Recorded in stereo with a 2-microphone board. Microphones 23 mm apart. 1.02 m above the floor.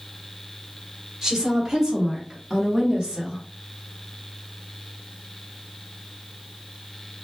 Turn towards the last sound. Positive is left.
turn(degrees=-25)  # may be behind; listen again after turning